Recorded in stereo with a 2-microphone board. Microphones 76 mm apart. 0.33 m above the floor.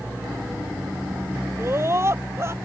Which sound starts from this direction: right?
A scream, at 1.6 s.